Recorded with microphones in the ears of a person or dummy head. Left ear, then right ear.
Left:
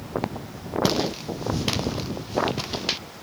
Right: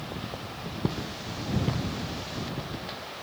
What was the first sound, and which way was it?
Footsteps, 80° left.